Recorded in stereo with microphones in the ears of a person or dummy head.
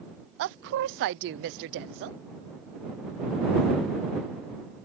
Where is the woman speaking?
55° right (ahead or behind).